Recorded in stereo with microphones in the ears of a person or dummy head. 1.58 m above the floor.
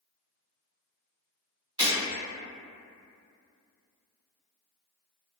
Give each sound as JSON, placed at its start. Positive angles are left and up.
{"t": 1.8, "sound": "breaking glass", "side_deg": -25, "distance_m": 1.1}